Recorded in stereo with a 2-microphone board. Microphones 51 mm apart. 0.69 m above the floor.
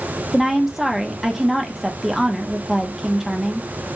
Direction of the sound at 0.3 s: 5° right (ahead or behind).